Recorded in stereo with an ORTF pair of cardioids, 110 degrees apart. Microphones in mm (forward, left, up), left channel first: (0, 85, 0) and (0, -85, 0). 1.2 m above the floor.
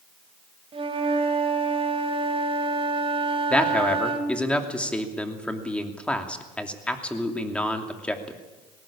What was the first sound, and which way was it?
A flute, 35° right.